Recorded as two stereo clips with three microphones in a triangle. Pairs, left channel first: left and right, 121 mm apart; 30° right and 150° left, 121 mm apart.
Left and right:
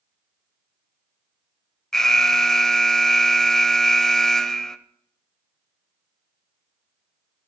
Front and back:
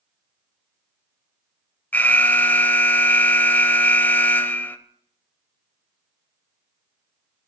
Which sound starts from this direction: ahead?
An alarm, at 1.9 s.